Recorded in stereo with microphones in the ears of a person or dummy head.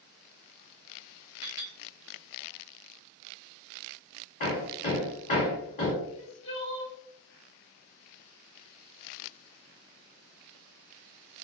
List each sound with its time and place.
1.4 s a clink: 20° right (ahead or behind), 0.8 m
4.4 s hammering: 45° left (ahead or behind), 1.3 m
6.0 s crying: 30° left (ahead or behind), 0.8 m